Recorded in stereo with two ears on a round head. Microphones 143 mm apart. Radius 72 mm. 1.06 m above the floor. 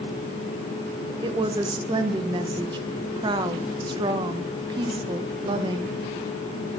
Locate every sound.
1.2 s a woman speaking: 30° right (ahead or behind), 0.9 m